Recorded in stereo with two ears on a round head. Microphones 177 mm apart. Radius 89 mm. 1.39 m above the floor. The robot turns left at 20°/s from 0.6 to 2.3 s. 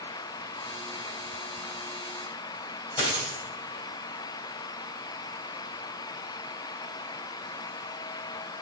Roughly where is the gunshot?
I don't hear a gunshot.